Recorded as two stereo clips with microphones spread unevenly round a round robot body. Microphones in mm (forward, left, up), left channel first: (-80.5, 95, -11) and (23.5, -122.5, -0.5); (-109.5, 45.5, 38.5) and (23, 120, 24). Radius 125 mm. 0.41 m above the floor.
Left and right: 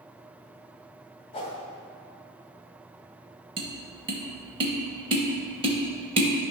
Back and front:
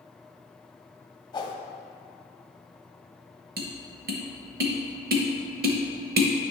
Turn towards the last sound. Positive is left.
turn(degrees=5)